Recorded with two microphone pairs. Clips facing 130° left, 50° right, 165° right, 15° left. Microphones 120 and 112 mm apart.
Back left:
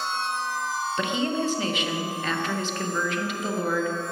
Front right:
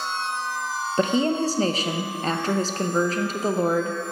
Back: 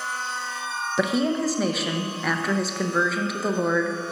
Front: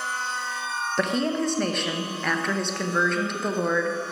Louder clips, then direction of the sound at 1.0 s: Front right 6 dB, back 2 dB; 80° right.